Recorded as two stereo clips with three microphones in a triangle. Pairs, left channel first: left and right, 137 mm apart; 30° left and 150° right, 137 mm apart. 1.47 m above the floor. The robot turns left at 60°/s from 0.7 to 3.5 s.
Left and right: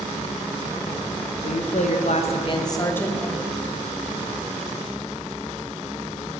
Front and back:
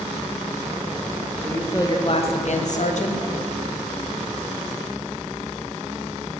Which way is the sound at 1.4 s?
110° left.